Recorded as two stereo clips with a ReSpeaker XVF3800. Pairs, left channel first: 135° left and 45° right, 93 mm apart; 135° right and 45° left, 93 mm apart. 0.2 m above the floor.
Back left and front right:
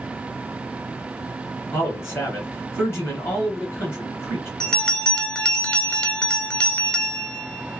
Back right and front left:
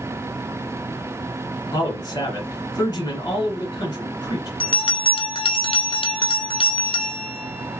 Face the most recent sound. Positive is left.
turn(degrees=-145)